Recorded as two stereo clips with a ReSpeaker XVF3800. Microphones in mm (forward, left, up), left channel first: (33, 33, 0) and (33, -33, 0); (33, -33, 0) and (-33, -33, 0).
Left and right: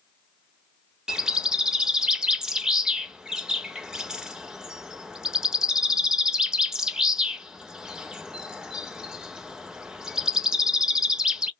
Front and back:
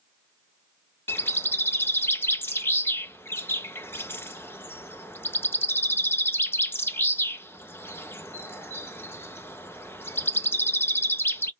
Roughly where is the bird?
Ahead.